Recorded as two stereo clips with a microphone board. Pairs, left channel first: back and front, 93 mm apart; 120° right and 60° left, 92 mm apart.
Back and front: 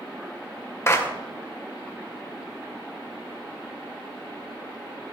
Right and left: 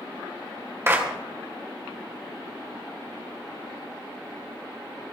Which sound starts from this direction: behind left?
A clap, at 0.9 s.